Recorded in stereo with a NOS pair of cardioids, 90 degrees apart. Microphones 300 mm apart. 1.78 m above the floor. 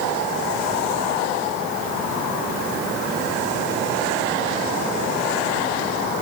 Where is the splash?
No splash in this recording.